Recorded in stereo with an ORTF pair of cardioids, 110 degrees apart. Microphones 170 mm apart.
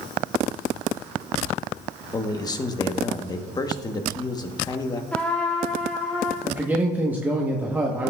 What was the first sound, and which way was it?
A man speaking, 25° left.